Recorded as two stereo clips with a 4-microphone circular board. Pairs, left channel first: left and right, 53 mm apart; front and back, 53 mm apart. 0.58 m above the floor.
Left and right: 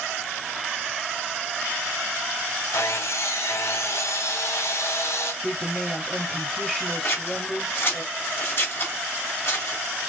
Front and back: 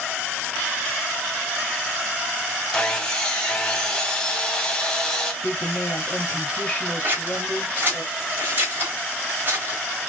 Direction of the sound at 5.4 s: 5° left.